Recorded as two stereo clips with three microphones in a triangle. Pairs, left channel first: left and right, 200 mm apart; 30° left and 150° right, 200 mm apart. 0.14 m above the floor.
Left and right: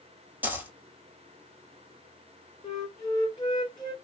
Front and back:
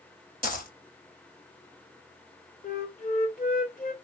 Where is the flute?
35° left, 1.3 m.